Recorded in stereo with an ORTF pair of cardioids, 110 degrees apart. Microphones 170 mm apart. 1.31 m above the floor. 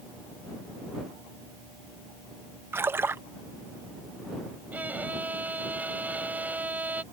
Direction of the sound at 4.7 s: 10° right.